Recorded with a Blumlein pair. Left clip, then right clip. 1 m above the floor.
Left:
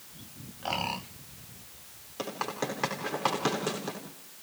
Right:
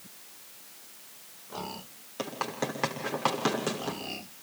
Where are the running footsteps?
5° right, 6 m.